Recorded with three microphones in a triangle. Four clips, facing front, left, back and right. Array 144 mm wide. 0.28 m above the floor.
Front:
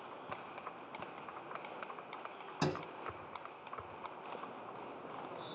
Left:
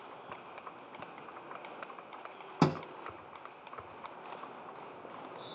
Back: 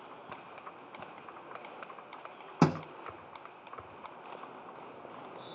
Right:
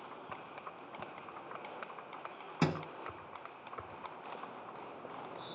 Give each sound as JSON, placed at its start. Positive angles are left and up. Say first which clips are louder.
{"t": 2.6, "sound": "a thud", "louder": "left 5 dB, back 9 dB", "azimuth_deg": 155, "distance_m": 1.0}